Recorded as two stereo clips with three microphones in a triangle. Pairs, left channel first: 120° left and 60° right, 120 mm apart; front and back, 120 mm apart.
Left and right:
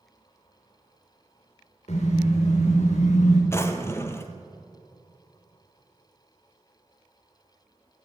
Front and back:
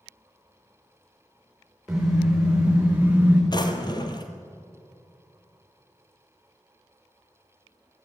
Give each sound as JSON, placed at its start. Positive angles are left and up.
{"t": 1.9, "sound": "a car horn", "azimuth_deg": 95, "distance_m": 7.5}
{"t": 3.5, "sound": "a drawer", "azimuth_deg": 50, "distance_m": 1.7}